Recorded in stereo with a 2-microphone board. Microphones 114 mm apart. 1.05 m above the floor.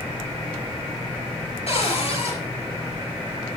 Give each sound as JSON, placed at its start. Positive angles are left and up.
{"t": 1.7, "sound": "a cupboard door", "side_deg": 60, "distance_m": 6.5}